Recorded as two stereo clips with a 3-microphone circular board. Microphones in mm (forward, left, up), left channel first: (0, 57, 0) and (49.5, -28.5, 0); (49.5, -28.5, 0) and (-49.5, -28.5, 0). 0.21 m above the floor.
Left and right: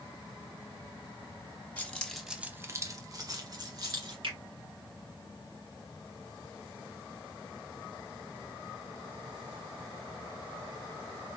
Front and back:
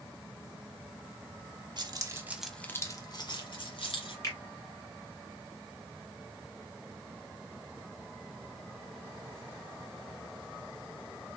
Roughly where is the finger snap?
Ahead right.